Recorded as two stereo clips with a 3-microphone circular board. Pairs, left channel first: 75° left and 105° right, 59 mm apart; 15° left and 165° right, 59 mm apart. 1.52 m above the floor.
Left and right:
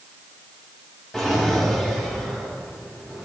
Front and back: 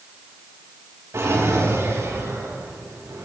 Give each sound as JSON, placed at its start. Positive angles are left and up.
{"t": 1.1, "sound": "a drawer", "azimuth_deg": 160, "distance_m": 5.5}